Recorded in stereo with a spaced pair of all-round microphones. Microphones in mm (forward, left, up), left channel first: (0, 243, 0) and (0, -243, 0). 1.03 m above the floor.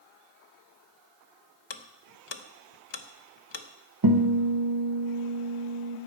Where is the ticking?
60° left (ahead or behind), 0.6 m.